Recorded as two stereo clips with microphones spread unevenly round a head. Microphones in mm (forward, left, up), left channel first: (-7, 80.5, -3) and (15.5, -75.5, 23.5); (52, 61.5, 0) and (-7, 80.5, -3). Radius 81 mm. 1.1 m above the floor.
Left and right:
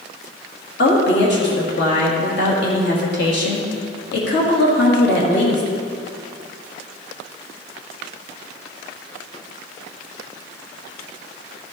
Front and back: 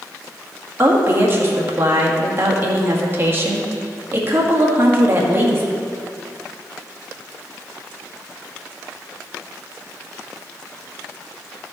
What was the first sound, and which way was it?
A woman speaking, 110° left.